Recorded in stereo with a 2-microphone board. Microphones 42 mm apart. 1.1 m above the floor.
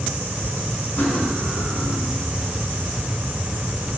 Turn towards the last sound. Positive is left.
turn(degrees=35)  # may be behind; listen again after turning